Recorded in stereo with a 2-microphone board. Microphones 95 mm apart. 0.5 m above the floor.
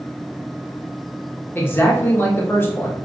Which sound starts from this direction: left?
A man speaking, at 1.6 s.